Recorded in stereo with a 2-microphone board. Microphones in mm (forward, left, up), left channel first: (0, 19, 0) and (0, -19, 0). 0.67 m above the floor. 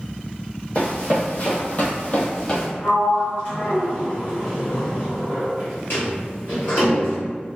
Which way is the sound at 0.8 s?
35° left (ahead or behind).